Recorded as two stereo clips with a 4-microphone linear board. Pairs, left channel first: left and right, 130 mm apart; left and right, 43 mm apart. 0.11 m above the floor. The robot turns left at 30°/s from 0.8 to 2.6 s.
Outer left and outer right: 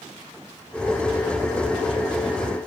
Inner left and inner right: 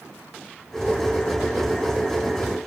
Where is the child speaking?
No child speaking in this recording.